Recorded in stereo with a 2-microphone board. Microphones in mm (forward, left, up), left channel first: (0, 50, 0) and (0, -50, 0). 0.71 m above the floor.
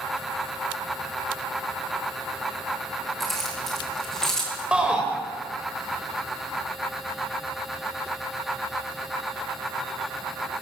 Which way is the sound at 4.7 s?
10° right (ahead or behind).